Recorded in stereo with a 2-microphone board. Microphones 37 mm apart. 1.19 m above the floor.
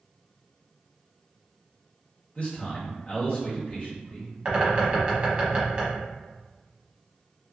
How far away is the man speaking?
About 1.2 m.